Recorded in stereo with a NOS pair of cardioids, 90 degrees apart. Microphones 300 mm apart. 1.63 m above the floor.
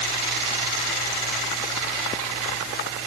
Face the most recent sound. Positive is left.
No sound to turn to.